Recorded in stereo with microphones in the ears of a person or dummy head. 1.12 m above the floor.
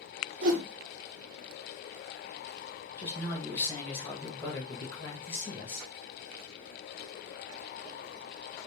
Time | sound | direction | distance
0.4 | a whoosh | 45° right (ahead or behind) | 0.7 m
3.0 | a man speaking | 15° left (ahead or behind) | 0.9 m